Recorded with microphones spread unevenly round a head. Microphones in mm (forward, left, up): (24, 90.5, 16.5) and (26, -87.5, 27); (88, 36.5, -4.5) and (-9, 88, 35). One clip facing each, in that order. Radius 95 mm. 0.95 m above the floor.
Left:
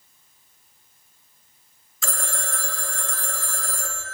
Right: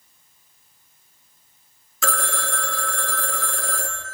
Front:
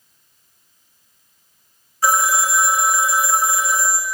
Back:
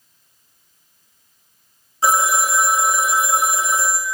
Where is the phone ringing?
130° right, 0.7 m.